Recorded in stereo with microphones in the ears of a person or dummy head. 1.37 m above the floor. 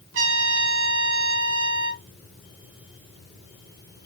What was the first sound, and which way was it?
A trumpet, 70° right (ahead or behind).